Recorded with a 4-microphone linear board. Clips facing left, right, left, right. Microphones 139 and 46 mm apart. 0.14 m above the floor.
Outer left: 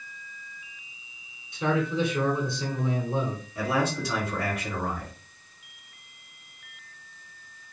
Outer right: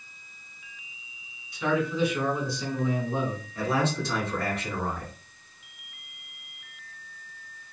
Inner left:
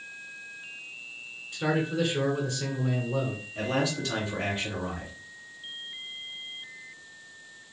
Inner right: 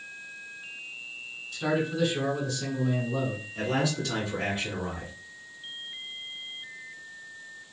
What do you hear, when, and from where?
1.5 s a man speaking: 25° left (ahead or behind), 1.3 m
3.5 s a man speaking: 10° left (ahead or behind), 1.9 m